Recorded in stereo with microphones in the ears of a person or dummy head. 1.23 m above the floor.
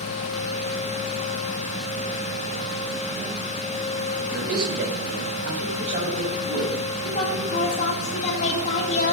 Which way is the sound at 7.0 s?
40° left (ahead or behind).